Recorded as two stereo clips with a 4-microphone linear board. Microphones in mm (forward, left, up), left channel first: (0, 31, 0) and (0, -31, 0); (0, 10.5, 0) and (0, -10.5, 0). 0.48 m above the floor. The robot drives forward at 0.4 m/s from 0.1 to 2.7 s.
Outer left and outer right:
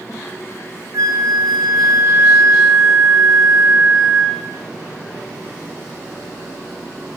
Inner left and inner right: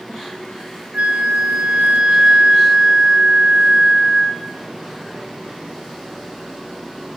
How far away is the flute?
About 0.6 m.